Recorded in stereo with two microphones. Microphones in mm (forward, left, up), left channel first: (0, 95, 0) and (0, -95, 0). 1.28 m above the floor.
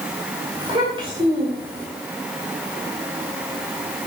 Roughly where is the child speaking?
Right.